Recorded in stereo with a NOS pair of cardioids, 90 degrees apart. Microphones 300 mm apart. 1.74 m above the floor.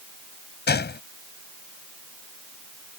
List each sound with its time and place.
0.7 s a gunshot: 35° left